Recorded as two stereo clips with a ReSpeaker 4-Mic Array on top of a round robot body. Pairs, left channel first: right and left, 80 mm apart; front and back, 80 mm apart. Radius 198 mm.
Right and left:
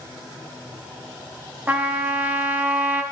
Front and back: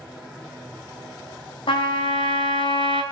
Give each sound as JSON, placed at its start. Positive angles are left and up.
{"t": 1.7, "sound": "a trumpet", "azimuth_deg": 15, "distance_m": 1.2}